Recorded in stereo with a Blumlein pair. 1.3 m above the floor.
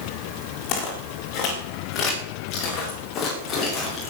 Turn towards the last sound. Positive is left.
turn(degrees=25)